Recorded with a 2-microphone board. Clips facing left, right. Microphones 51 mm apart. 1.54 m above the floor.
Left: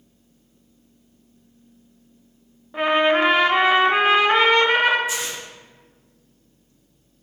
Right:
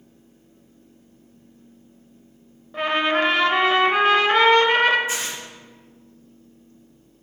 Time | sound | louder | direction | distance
2.7 | a trumpet | left 3 dB | 15° left (ahead or behind) | 0.6 m
5.1 | tearing paper | even | 35° right (ahead or behind) | 1.5 m